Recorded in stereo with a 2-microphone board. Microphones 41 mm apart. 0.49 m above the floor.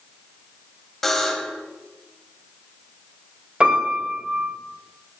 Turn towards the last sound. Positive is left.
turn(degrees=-25)  # may be behind; listen again after turning